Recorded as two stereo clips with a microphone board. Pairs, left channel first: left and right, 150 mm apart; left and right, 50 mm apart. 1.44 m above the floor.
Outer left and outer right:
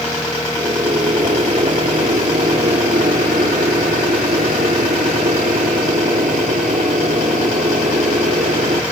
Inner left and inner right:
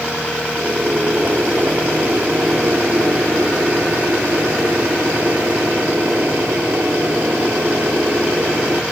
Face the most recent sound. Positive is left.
turn(degrees=-60)  # may be behind; listen again after turning